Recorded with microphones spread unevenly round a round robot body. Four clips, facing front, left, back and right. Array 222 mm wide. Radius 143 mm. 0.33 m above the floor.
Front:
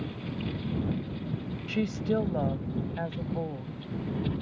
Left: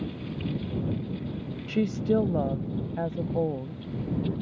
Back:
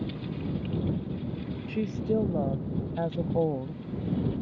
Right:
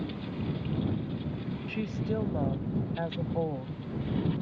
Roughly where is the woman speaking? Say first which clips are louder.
Left 9 dB, even; left.